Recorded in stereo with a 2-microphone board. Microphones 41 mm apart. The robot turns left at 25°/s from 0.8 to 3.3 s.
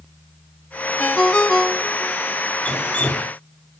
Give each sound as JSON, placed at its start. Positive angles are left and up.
{"t": 1.0, "sound": "a ringtone", "side_deg": 35, "distance_m": 0.8}
{"t": 2.6, "sound": "dripping", "side_deg": 30, "distance_m": 2.0}